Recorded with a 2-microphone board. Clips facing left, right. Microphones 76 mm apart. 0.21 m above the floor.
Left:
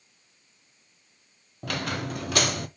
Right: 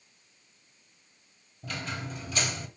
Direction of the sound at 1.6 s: 65° left (ahead or behind).